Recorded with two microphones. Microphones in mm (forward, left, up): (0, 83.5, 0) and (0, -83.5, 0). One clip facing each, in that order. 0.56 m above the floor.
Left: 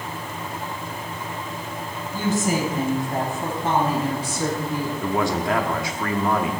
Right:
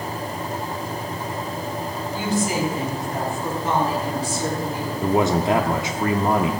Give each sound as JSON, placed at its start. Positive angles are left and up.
{"t": 2.1, "sound": "a woman speaking", "side_deg": 50, "distance_m": 3.0}
{"t": 5.0, "sound": "a man speaking", "side_deg": -20, "distance_m": 0.7}